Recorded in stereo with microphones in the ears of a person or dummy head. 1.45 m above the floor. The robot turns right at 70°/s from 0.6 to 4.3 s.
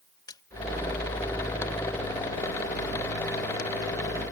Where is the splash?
20° left (ahead or behind).